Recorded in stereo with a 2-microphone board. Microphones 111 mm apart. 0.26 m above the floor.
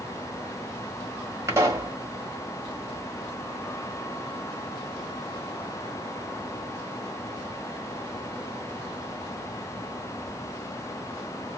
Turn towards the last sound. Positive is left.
turn(degrees=-25)  # may be behind; listen again after turning